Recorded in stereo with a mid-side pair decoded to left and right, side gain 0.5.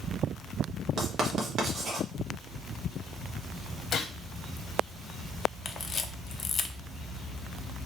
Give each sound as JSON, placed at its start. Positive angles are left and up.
{"t": 1.0, "sound": "writing", "azimuth_deg": -50, "distance_m": 1.4}
{"t": 3.9, "sound": "a gunshot", "azimuth_deg": 55, "distance_m": 1.0}
{"t": 5.7, "sound": "a camera shutter", "azimuth_deg": 40, "distance_m": 0.7}